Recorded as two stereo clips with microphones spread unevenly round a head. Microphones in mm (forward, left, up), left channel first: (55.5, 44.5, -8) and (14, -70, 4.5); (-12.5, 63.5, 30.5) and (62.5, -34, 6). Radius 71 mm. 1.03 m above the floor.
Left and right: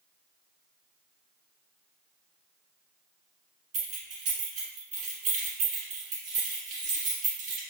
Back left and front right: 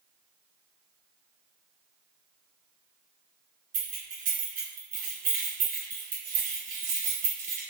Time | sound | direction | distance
3.7 | keys jangling | 90° right | 1.6 m